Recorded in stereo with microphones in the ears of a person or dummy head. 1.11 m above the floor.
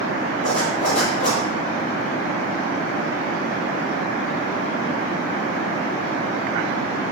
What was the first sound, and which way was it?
A zipper, 45° left (ahead or behind).